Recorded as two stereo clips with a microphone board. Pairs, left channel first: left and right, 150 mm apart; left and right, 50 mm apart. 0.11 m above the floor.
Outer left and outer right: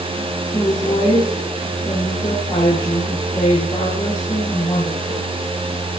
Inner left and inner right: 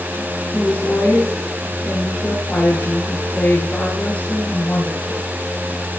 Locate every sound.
0.5 s a woman speaking: 30° left (ahead or behind), 7.5 m